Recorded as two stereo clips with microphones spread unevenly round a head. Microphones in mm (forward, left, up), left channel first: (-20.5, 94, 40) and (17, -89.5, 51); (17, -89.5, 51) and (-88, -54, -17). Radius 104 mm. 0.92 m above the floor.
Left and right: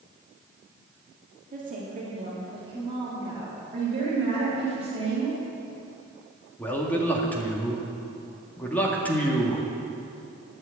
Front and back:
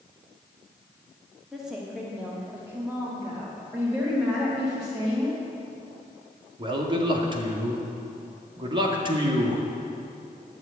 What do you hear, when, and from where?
1.5 s a woman speaking: 125° right, 2.5 m; by 3.6 s 155° right, 3 m
3.7 s a woman speaking: 140° right, 4.5 m
6.6 s a man speaking: straight behind, 2 m